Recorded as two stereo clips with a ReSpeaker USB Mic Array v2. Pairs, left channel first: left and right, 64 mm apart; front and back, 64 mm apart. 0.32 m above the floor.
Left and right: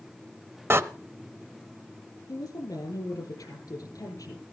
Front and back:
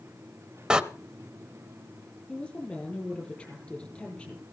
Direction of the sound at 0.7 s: 110° right.